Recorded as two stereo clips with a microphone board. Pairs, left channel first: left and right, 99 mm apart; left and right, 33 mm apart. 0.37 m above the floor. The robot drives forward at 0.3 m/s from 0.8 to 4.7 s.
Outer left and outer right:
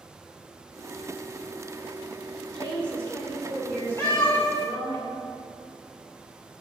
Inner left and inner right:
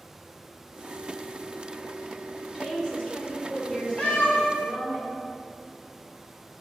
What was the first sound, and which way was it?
A woman speaking, 20° left (ahead or behind).